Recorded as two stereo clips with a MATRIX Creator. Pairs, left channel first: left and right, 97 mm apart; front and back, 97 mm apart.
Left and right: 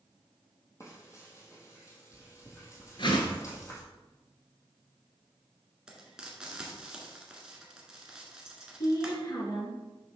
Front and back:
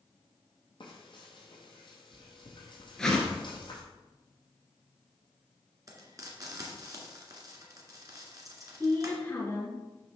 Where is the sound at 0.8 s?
30° left, 1.8 m.